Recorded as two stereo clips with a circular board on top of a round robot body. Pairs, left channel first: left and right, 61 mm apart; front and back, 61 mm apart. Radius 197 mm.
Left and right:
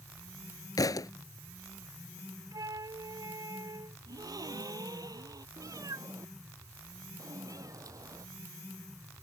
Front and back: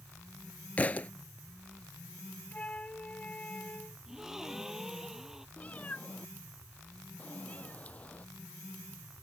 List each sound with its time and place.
0.8 s a thud: 70° left
2.5 s a flute: 70° right
4.1 s a gasp: 95° right
5.6 s a cat meowing: 65° right